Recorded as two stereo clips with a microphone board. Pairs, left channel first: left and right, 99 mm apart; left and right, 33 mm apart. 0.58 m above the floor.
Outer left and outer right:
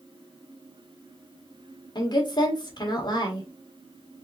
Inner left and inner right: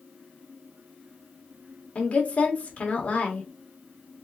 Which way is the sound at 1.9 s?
45° left (ahead or behind).